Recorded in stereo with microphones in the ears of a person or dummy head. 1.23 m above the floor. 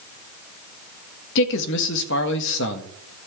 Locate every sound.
1.4 s a man speaking: 65° left (ahead or behind), 1.6 m